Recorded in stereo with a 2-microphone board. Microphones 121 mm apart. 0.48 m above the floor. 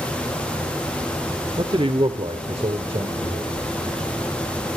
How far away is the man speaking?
About 0.9 m.